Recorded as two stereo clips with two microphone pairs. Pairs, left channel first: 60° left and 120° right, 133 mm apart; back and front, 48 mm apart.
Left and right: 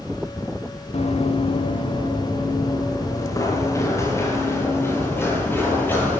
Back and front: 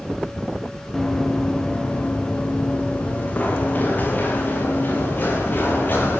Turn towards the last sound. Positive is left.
turn(degrees=135)